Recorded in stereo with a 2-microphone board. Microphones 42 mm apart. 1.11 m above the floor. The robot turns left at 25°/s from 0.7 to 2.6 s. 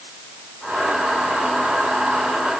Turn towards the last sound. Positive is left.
No sound to turn to.